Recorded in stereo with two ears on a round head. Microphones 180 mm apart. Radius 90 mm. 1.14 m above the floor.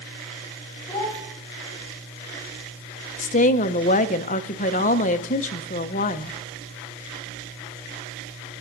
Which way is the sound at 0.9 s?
10° left (ahead or behind).